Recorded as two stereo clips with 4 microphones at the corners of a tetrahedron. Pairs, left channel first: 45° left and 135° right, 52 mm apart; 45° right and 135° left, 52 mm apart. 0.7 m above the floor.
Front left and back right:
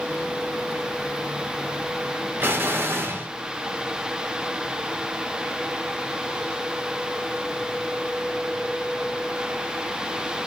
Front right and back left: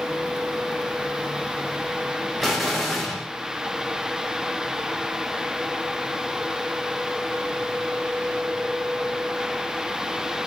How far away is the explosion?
About 0.6 m.